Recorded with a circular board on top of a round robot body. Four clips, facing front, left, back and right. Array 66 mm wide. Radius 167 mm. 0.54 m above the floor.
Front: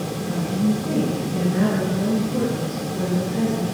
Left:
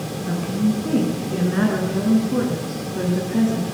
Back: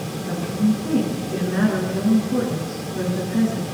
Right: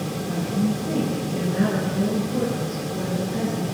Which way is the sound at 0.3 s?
105° left.